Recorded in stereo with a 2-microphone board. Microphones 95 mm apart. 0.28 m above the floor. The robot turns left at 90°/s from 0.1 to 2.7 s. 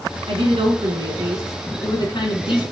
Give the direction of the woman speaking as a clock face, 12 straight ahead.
2 o'clock.